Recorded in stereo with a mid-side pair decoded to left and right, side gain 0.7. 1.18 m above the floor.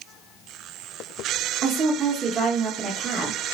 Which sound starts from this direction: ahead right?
A woman speaking, at 1.6 s.